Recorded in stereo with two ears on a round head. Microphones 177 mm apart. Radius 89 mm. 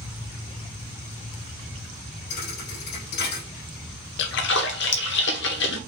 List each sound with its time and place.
2.3 s a thud: 50° left (ahead or behind), 2.5 m
4.2 s a splash: 60° left (ahead or behind), 0.9 m